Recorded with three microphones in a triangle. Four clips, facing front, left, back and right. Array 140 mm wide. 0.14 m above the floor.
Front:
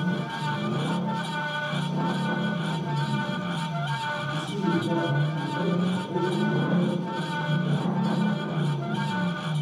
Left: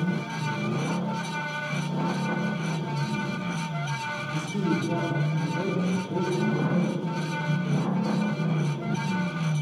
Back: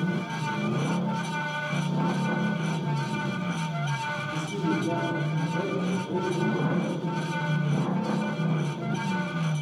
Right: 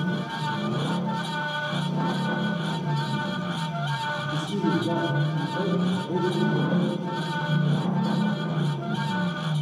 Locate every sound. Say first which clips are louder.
4.3 s a man speaking: right 1 dB, front 1 dB; 100° right, 9.5 m